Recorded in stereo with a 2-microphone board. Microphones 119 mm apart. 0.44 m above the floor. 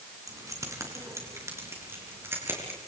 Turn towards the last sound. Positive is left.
turn(degrees=-20)  # may be behind; listen again after turning